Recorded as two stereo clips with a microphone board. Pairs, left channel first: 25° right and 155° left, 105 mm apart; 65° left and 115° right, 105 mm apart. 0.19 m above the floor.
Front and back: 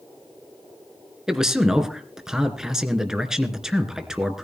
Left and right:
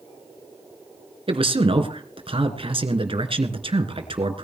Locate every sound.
1.3 s a man speaking: 120° right, 2.5 m